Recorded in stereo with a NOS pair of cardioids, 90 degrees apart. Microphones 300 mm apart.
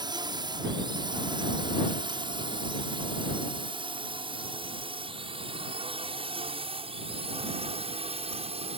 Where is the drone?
15° right; by 8.8 s 20° right.